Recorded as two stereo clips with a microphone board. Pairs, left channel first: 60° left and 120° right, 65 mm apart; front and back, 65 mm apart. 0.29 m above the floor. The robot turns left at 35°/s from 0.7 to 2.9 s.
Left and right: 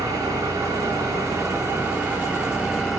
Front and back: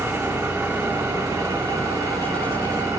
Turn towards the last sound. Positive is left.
turn(degrees=155)